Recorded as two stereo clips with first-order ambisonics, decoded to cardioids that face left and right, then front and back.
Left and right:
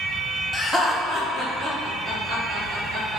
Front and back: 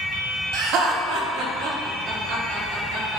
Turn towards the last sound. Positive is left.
turn(degrees=-140)